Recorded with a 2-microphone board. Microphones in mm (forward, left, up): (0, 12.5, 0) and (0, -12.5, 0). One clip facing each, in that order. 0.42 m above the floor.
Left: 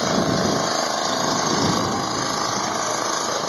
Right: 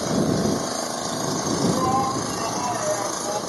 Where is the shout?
55° right (ahead or behind).